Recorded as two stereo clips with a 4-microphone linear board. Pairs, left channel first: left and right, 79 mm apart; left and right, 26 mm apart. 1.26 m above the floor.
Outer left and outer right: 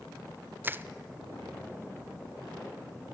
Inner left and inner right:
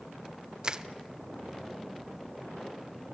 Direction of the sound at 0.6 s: 25° right (ahead or behind).